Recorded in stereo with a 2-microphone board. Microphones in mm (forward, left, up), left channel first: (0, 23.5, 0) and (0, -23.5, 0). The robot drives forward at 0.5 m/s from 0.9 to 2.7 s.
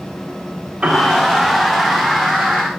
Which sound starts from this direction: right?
A piano, at 0.8 s.